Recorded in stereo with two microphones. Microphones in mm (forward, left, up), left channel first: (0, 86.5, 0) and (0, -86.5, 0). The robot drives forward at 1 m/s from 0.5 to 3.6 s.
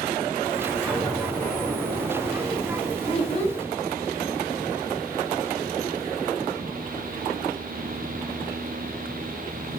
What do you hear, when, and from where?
0.9 s an explosion: centre (ahead or behind), 7 m
3.1 s a child speaking: 35° left (ahead or behind), 3 m; by 3.6 s 40° left (ahead or behind), 2.5 m